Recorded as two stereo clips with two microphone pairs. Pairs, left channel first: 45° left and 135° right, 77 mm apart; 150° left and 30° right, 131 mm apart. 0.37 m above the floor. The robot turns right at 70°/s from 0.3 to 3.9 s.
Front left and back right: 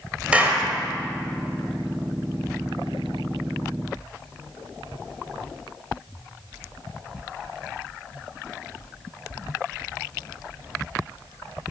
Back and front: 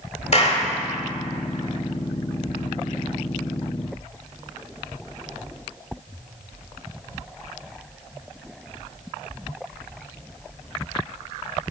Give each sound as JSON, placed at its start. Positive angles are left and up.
{"t": 0.3, "sound": "a clap", "azimuth_deg": 155, "distance_m": 1.1}